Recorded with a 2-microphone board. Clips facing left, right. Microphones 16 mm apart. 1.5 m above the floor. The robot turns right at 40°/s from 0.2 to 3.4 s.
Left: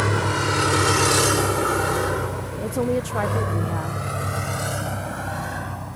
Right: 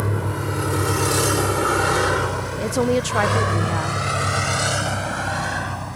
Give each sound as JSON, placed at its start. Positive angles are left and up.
{"t": 0.0, "sound": "a vehicle", "side_deg": 75}
{"t": 2.6, "sound": "a woman speaking", "azimuth_deg": -80}